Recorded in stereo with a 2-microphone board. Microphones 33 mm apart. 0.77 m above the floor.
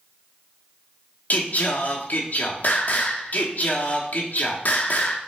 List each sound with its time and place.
1.3 s singing: 55° left (ahead or behind), 0.8 m